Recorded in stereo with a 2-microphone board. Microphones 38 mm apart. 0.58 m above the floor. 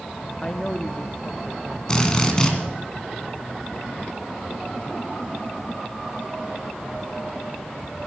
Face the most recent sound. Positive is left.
turn(degrees=20)  # may be behind; listen again after turning